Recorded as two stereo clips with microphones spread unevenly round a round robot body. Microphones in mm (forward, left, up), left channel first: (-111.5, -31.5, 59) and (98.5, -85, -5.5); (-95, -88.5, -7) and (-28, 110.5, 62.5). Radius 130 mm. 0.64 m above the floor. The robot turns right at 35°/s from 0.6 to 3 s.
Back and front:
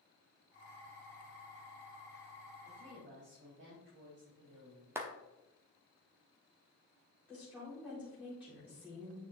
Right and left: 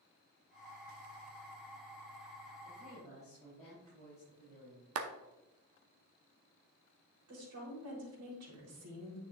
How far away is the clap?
About 0.8 m.